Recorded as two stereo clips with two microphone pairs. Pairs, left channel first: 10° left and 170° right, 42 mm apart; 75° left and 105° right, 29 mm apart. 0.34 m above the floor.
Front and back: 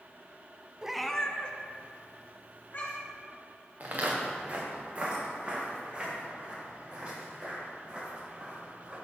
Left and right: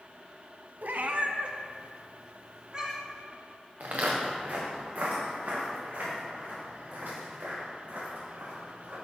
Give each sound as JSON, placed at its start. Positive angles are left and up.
{"t": 0.8, "sound": "a cat meowing", "azimuth_deg": -100, "distance_m": 0.6}
{"t": 3.8, "sound": "footsteps", "azimuth_deg": -130, "distance_m": 2.5}